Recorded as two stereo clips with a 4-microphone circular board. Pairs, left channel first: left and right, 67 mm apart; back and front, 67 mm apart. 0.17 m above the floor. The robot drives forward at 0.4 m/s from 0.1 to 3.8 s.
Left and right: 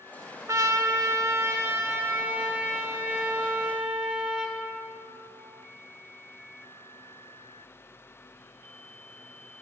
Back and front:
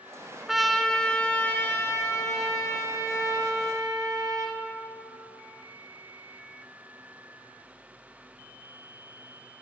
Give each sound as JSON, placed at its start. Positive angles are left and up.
{"t": 0.5, "sound": "a trumpet", "azimuth_deg": -85, "distance_m": 0.6}